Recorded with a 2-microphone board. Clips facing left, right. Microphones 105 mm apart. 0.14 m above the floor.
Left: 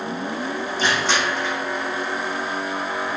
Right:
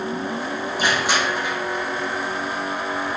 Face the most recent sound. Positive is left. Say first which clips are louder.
# even
turn(degrees=-15)  # may be behind; listen again after turning